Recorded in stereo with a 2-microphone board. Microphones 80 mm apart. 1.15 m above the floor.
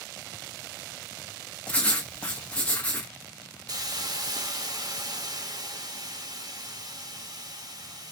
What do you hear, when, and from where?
1.7 s writing: 20° left (ahead or behind), 1.2 m
3.7 s a hiss: 50° right (ahead or behind), 0.7 m